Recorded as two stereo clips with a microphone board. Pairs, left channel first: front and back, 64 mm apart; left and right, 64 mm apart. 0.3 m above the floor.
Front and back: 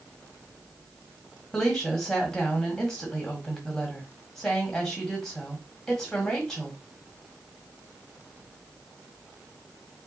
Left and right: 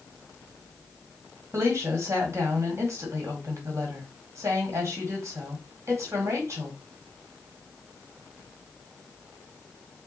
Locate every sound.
1.5 s a woman speaking: 80° right, 1.9 m